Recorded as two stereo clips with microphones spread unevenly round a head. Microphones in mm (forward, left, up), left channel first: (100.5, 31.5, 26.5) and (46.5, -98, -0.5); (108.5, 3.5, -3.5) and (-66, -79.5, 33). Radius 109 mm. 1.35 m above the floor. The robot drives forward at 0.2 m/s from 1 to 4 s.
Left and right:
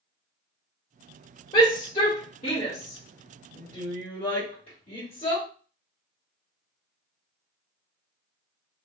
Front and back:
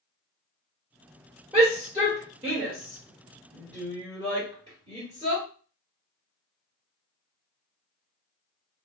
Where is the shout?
120° left, 1.8 m; by 5.5 s 130° left, 2 m.